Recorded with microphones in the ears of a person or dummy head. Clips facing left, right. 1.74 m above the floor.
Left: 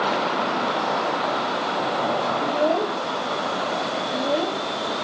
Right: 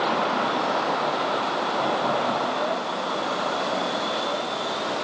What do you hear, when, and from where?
2.4 s a child speaking: 55° left (ahead or behind); by 4.6 s 60° left (ahead or behind)